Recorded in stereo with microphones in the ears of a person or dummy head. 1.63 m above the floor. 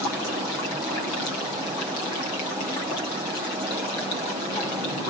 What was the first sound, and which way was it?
Only background noise.